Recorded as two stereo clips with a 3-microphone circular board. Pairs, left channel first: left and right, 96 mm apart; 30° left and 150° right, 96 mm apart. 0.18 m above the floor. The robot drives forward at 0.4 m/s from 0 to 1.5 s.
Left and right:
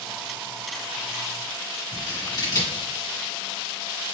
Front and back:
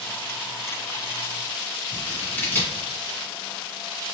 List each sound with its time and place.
1.9 s scissors: 90° left, 2 m